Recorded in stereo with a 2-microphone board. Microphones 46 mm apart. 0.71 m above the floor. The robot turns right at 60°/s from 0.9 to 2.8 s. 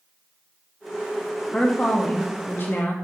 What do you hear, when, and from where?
1.5 s a woman speaking: 25° left, 0.7 m; by 2.9 s 105° left, 0.7 m